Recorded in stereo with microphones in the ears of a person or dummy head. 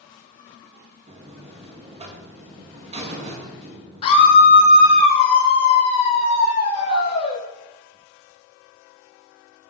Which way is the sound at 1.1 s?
35° right (ahead or behind).